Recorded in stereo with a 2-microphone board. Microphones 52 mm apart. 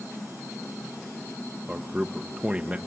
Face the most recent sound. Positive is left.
turn(degrees=-25)  # may be behind; listen again after turning